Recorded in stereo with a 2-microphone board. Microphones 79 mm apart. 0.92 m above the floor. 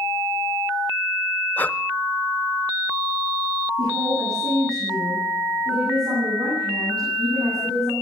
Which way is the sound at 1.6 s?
20° left (ahead or behind).